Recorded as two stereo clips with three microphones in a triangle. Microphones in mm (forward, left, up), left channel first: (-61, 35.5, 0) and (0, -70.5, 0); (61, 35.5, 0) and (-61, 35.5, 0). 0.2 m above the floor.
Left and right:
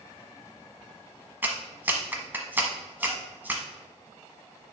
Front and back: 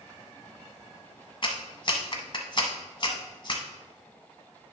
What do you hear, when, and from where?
1.4 s a clap: 5° left, 1.2 m